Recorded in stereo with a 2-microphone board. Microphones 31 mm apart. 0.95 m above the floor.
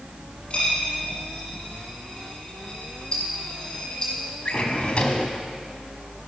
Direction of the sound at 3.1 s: 30° left (ahead or behind).